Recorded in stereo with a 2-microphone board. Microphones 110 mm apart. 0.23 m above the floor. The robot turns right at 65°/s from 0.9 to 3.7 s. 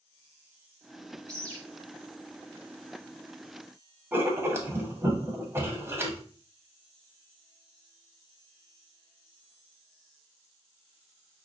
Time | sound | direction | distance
1.3 | a bird | 30° right (ahead or behind) | 1.2 m
4.1 | writing | 20° right (ahead or behind) | 0.9 m